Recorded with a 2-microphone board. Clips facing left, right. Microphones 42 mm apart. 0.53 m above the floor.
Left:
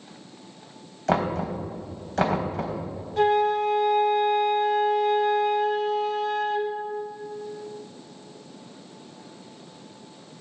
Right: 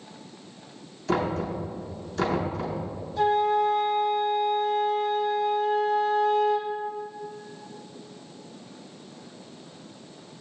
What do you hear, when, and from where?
1.1 s knocking: 75° left (ahead or behind), 3 m
3.2 s a flute: 55° left (ahead or behind), 1.8 m